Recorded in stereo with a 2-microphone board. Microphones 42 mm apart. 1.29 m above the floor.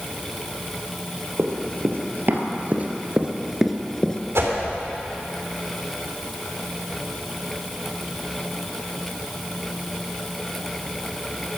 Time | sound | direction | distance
1.4 | running footsteps | 60° right (ahead or behind) | 2.5 m
4.3 | a whoosh | 80° right | 3.5 m